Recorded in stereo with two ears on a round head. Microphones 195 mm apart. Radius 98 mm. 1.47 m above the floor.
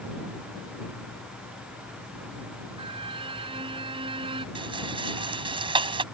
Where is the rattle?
25° right (ahead or behind).